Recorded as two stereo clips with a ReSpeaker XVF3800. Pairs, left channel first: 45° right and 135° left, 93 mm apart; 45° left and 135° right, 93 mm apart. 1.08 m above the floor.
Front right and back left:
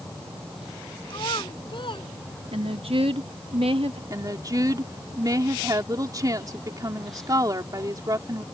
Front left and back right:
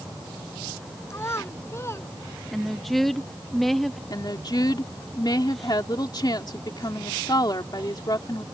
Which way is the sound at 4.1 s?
85° left.